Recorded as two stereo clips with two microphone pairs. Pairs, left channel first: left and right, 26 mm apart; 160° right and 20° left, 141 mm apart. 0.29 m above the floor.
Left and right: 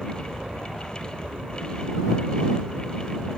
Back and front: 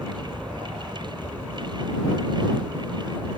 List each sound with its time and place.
0.0 s an aircraft: 80° right; by 3.4 s 85° right